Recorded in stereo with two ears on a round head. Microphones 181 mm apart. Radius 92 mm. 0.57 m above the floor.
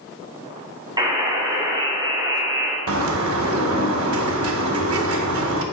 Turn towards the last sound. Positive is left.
turn(degrees=-75)  # may be behind; listen again after turning